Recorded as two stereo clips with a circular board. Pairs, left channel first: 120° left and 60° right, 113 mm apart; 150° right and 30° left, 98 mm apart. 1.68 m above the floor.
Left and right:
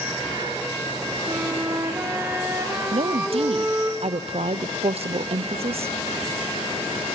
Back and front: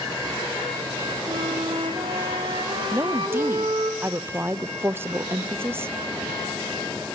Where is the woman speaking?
35° right, 0.6 m.